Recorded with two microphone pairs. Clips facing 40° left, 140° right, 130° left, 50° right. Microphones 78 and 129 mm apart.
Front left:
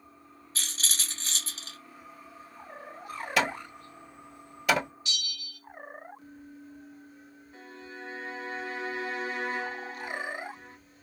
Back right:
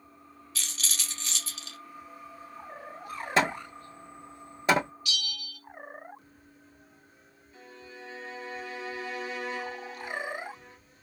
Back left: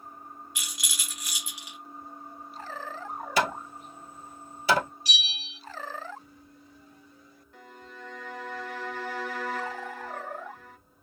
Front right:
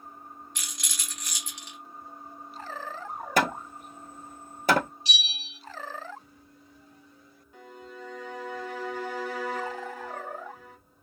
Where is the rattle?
50° left, 1.1 m.